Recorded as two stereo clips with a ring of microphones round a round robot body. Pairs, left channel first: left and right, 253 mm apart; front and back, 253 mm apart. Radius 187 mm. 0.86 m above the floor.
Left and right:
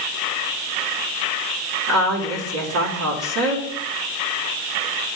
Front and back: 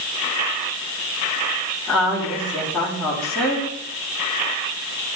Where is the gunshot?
I don't hear a gunshot.